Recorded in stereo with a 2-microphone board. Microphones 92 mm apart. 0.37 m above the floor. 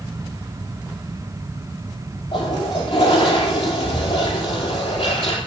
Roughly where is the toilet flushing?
Left.